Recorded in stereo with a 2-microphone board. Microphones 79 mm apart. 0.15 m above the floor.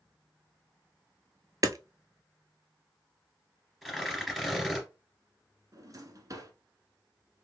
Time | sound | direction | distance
1.6 | hammering | 50° right (ahead or behind) | 0.5 m
3.8 | tearing paper | centre (ahead or behind) | 2.5 m
5.7 | a drawer | 45° right (ahead or behind) | 1.3 m